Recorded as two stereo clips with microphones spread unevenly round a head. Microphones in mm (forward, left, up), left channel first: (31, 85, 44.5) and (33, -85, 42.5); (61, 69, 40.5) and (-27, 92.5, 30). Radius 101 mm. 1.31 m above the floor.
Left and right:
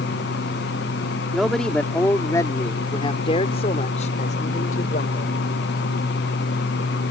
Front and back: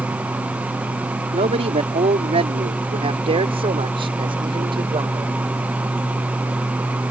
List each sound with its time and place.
1.3 s a man speaking: straight behind; by 5.3 s 140° left